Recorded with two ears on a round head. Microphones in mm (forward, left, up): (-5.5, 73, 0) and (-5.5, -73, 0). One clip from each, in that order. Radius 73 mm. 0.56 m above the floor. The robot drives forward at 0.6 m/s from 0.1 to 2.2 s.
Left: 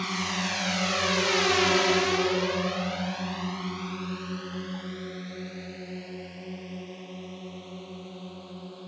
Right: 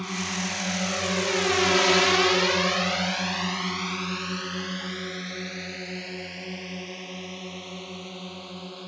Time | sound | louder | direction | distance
0.0 | a drone | left 1 dB | 40° left (ahead or behind) | ?